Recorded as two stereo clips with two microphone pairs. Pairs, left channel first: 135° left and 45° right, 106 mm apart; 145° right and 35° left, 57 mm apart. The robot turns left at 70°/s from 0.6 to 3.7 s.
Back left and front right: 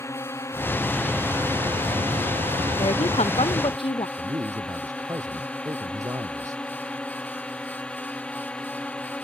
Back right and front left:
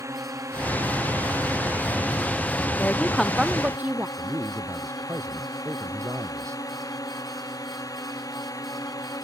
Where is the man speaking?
5° left.